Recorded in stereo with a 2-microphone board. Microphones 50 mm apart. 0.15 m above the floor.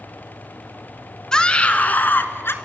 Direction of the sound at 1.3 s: 15° left (ahead or behind).